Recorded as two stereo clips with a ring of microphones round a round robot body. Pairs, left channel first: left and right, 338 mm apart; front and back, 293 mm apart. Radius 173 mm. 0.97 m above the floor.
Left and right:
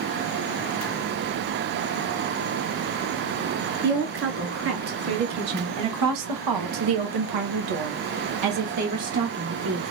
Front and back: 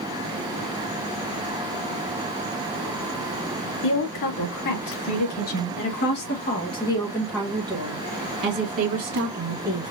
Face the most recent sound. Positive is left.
turn(degrees=-150)